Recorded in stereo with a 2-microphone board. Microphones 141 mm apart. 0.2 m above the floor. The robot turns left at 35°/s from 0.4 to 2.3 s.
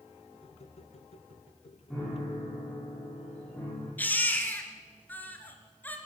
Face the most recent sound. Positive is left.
turn(degrees=15)  # may be behind; listen again after turning